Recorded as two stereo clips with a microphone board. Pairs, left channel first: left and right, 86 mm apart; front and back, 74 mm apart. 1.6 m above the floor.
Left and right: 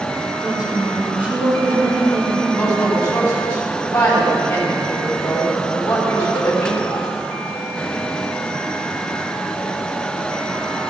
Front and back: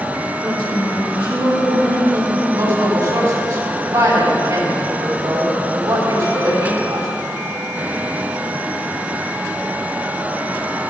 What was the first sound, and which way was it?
A woman speaking, 165° right.